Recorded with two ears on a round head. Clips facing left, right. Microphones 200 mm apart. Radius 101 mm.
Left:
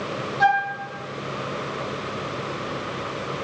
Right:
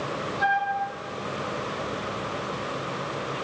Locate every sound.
0.4 s a flute: 65° left (ahead or behind), 6.5 m